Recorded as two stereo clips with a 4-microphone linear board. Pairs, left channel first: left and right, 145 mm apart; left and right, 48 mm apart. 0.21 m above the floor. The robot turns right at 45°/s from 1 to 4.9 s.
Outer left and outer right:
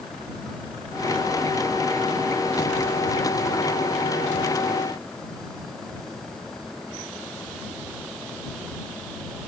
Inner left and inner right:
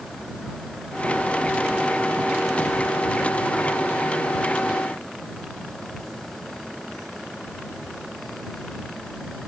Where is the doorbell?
I don't hear a doorbell.